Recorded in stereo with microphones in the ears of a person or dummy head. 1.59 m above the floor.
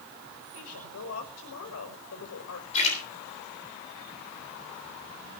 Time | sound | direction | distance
0.5 | a woman speaking | 85° left | 5.5 m
2.7 | a splash | 35° left (ahead or behind) | 9.5 m